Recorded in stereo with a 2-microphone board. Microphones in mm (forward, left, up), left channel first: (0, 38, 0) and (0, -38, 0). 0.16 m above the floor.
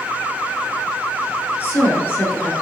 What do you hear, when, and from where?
1.6 s a woman speaking: 30° left (ahead or behind), 2.5 m